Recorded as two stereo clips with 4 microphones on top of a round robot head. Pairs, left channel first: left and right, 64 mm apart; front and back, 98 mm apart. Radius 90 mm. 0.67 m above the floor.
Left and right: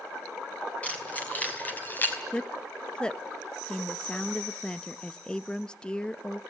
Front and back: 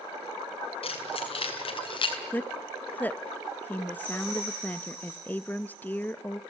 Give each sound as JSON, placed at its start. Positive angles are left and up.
{"t": 0.8, "sound": "keys jangling", "azimuth_deg": 20, "distance_m": 5.5}
{"t": 2.3, "sound": "a woman speaking", "azimuth_deg": 40, "distance_m": 0.7}